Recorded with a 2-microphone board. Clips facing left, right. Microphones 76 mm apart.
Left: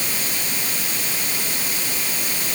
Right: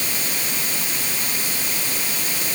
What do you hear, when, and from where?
Only background noise.